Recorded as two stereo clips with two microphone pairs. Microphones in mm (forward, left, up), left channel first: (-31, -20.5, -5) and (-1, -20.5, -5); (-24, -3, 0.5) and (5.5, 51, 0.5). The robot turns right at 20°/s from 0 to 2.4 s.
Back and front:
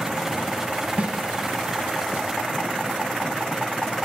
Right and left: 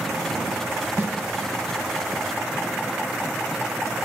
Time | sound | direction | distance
1.0 | a snare drum | 15° left | 1.0 m